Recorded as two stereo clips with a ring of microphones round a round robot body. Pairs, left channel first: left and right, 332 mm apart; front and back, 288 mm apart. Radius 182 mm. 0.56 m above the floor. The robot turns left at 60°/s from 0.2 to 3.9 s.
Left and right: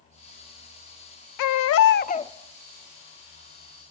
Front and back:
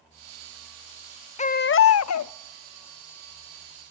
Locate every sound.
1.4 s a baby crying: 65° left, 0.6 m; by 2.3 s 10° left, 0.6 m